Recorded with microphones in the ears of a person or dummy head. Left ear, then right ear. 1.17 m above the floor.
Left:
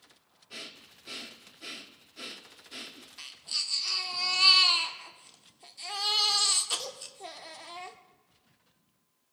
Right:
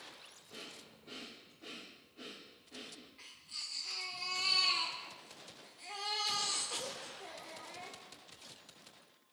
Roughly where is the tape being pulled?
No tape being pulled in this recording.